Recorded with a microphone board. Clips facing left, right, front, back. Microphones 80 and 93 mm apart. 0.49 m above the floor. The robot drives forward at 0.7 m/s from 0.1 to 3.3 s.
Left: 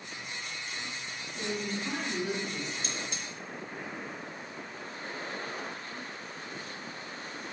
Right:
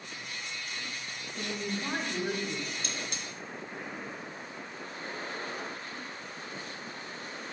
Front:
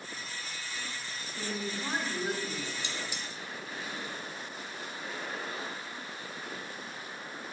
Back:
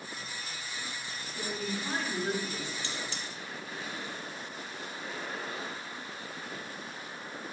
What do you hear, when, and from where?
1.4 s a woman speaking: 55° right, 4 m; by 2.7 s 70° right, 3.5 m
2.8 s cutlery clinking: 70° right, 1.2 m; by 3.2 s 85° right, 1.1 m